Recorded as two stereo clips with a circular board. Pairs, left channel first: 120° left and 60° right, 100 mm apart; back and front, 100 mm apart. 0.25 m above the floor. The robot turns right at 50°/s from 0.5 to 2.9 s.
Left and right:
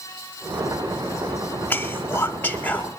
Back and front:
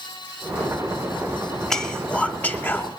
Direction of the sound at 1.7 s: 105° left.